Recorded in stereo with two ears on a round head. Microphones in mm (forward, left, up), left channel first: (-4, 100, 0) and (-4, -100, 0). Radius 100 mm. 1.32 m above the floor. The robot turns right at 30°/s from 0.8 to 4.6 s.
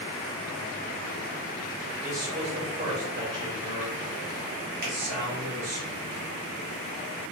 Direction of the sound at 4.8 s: 45° right (ahead or behind).